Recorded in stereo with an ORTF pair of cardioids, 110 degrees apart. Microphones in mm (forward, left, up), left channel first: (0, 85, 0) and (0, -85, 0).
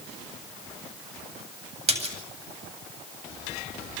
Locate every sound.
1.9 s a splash: 40° right, 8.5 m